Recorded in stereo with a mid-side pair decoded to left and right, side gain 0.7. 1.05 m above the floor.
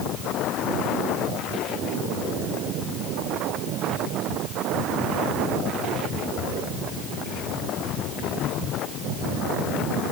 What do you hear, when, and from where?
Only background noise.